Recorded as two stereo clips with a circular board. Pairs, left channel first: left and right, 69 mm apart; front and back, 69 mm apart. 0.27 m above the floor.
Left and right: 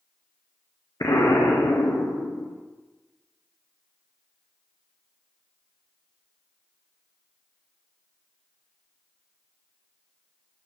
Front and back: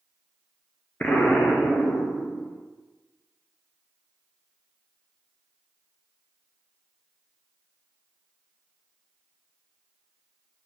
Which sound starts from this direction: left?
An explosion, at 1.0 s.